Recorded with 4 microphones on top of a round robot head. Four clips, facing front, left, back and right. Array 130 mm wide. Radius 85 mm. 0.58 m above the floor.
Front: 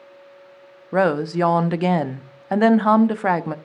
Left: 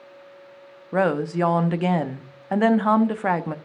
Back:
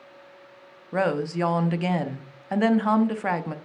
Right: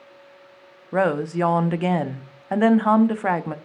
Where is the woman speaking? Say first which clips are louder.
Even, front 6 dB; 5° right, 0.7 m.